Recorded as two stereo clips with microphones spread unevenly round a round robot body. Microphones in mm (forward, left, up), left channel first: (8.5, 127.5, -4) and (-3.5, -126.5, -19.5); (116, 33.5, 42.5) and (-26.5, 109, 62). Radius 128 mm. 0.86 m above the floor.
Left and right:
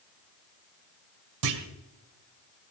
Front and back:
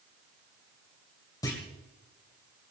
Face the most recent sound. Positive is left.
turn(degrees=-105)